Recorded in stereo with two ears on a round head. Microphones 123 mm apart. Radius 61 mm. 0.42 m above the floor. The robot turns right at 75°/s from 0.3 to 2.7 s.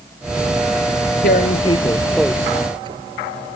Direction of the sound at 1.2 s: 70° left (ahead or behind).